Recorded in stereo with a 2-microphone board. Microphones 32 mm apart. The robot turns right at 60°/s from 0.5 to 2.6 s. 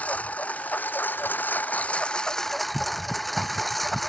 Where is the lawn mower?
50° left; by 4.1 s 175° left.